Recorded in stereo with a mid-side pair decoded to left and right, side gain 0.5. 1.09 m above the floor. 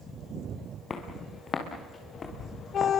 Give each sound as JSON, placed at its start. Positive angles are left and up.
{"t": 0.9, "sound": "footsteps", "azimuth_deg": 40, "distance_m": 5.0}